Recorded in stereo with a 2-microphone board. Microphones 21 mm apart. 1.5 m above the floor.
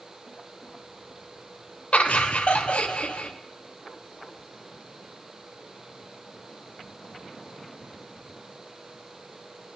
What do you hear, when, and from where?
1.9 s laughter: 80° left, 0.9 m